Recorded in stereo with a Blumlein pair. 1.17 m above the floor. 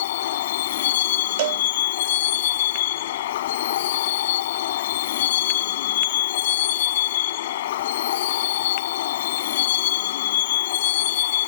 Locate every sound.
0.0 s a vehicle: 55° left
1.4 s a cowbell: 50° right